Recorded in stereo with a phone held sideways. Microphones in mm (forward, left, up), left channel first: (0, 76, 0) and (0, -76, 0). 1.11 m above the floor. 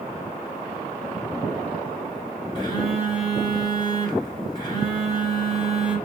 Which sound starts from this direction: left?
A phone buzzing, at 2.5 s.